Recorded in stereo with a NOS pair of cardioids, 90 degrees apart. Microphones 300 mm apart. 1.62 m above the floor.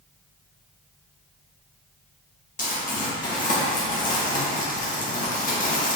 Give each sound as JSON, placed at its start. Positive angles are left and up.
{"t": 2.6, "sound": "crumpling", "azimuth_deg": 30, "distance_m": 2.5}